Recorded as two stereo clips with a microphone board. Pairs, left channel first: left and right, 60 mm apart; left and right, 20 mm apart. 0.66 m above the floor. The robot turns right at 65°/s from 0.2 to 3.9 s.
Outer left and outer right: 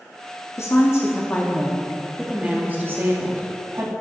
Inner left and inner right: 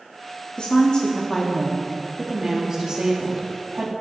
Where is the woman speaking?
85° left, 0.8 m; by 3.9 s 60° right, 0.8 m.